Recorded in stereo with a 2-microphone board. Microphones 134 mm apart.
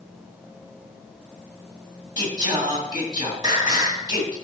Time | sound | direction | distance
2.2 | singing | 30° right (ahead or behind) | 2.5 m